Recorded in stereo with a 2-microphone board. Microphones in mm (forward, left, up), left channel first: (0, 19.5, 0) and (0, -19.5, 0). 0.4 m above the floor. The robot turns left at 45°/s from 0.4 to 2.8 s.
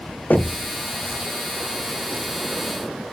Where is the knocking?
45° left (ahead or behind), 1.1 m; by 0.7 s 50° left (ahead or behind), 1.1 m.